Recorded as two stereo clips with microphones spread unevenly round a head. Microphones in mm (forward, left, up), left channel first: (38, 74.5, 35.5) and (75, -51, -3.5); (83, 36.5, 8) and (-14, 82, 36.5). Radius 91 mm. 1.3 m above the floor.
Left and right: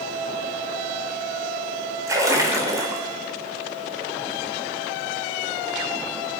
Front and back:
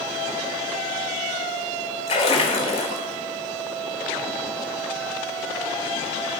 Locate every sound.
2.1 s a splash: straight ahead, 1.3 m